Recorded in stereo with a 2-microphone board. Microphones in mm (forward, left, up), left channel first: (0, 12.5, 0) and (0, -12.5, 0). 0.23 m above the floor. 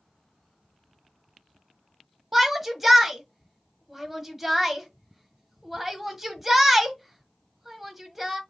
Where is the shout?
10° right (ahead or behind), 1.1 m.